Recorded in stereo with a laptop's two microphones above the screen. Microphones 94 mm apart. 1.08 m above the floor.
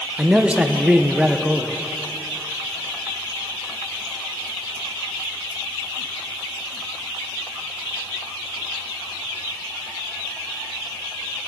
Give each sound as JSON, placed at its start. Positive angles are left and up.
{"t": 0.2, "sound": "a man speaking", "side_deg": -15, "distance_m": 0.8}